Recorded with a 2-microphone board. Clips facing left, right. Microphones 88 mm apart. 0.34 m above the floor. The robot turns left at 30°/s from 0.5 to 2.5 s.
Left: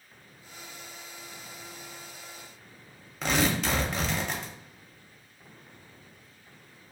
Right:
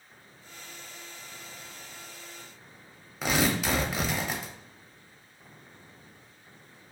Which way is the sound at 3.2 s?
5° right (ahead or behind).